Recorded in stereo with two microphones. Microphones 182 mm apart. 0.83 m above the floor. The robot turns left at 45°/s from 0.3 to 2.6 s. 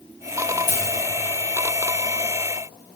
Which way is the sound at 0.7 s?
65° left (ahead or behind).